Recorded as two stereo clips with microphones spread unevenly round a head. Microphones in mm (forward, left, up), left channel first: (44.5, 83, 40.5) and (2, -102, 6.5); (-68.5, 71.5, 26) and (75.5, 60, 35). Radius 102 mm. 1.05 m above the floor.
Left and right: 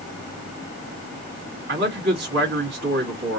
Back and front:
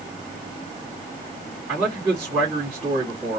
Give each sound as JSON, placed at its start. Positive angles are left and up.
{"t": 1.7, "sound": "a man speaking", "azimuth_deg": -90, "distance_m": 2.0}